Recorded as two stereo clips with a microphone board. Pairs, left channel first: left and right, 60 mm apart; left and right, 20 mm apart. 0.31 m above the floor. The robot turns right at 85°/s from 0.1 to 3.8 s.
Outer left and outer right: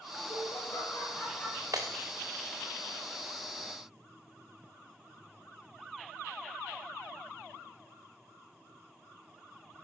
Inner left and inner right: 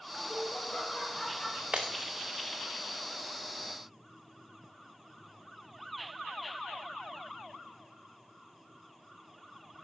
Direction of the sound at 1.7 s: 70° right (ahead or behind).